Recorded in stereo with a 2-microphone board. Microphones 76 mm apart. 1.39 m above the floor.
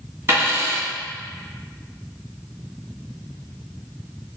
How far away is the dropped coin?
About 1.6 m.